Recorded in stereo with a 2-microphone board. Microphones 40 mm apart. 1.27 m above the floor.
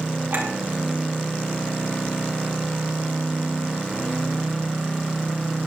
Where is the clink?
65° right (ahead or behind), 7 m.